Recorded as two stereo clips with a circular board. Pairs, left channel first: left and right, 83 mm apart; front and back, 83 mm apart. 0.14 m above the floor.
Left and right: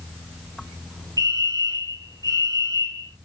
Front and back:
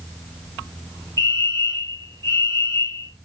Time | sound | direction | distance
1.2 | a fire alarm | 50° right | 5 m